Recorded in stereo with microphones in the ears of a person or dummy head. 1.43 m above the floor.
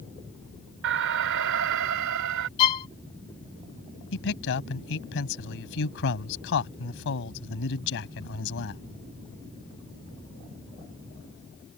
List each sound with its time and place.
0.8 s an alarm: 70° right (ahead or behind)
2.6 s a violin: 30° left (ahead or behind)
4.1 s a man speaking: 75° left (ahead or behind)